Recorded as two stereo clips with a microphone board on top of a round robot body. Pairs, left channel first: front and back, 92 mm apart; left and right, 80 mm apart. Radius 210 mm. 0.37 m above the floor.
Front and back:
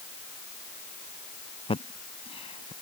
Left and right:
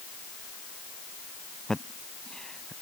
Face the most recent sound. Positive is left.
turn(degrees=5)